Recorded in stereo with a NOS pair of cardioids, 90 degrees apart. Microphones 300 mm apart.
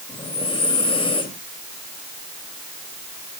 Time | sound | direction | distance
0.1 | breathing | 20° left | 2.5 m